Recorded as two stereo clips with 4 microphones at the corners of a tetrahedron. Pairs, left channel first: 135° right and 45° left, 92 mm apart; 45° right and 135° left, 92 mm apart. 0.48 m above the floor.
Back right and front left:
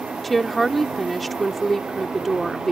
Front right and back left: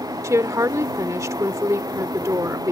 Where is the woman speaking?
135° left.